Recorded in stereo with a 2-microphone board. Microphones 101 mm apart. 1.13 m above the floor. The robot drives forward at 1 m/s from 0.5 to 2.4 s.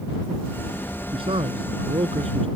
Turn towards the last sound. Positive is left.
turn(degrees=-65)  # may be behind; listen again after turning